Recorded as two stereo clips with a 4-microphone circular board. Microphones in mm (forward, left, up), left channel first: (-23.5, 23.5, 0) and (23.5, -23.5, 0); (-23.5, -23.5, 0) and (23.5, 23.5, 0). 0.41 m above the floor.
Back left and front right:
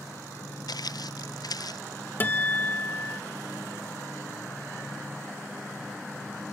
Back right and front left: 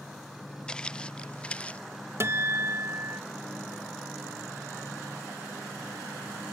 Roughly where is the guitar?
Left.